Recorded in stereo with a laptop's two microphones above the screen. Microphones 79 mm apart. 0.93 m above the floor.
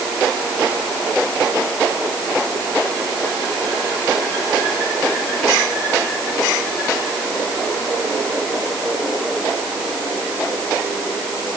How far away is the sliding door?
I don't hear a sliding door.